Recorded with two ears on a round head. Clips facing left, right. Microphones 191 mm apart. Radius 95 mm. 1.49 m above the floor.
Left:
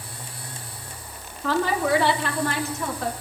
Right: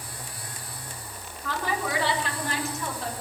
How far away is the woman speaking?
About 2.5 m.